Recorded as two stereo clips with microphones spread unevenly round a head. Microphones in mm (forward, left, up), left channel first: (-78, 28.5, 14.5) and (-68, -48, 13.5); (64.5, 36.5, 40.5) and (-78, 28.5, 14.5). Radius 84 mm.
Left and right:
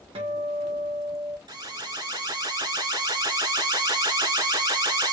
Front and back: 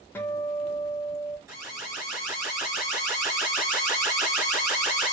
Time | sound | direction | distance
0.1 | a guitar | 75° right | 0.8 m
1.5 | an alarm | 105° right | 2.5 m